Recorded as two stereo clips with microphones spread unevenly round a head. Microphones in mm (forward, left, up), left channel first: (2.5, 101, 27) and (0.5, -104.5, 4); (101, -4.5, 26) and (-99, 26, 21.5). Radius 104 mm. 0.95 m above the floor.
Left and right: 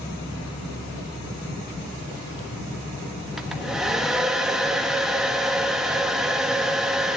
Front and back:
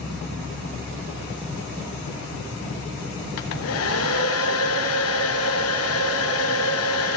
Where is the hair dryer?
5° right, 1.0 m.